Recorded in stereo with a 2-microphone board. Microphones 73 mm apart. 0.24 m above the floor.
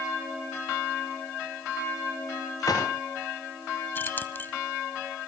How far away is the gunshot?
About 8.5 m.